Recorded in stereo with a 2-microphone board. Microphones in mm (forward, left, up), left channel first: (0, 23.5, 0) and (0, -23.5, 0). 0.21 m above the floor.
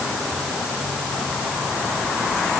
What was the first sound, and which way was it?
Only background noise.